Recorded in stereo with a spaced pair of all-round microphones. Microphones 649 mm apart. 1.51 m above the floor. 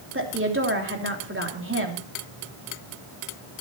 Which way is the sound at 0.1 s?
20° right (ahead or behind).